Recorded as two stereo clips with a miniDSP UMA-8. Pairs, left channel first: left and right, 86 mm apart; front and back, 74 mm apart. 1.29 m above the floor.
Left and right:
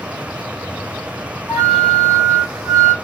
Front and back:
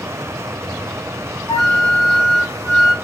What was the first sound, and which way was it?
A flute, 45° right.